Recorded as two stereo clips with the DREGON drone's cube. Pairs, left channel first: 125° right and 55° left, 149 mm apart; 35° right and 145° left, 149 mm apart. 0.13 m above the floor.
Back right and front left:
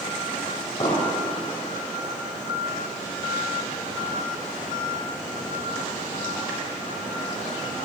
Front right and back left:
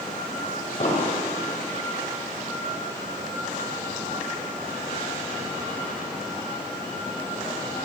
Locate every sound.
0.8 s an explosion: 65° right, 3.5 m